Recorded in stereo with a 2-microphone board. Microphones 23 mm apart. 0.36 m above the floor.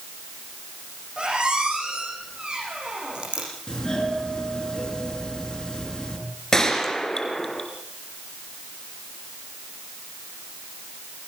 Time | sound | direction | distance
1.2 | a squeak | 45° right (ahead or behind) | 8.5 m
3.7 | a doorbell | 30° left (ahead or behind) | 6 m
6.5 | a gunshot | 25° left (ahead or behind) | 3 m